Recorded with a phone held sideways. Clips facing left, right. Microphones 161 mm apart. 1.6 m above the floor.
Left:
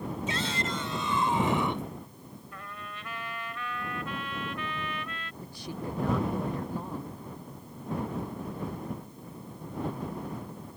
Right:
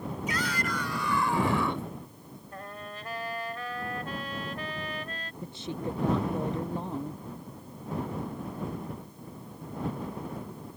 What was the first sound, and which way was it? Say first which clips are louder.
A shout: right 2 dB; 25° left (ahead or behind).